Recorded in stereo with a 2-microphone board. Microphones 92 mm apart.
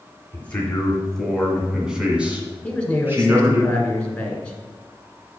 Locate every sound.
0.3 s a man speaking: 20° left (ahead or behind), 1.7 m; by 3.6 s 30° right (ahead or behind), 2 m
2.6 s a man speaking: 10° left (ahead or behind), 1.6 m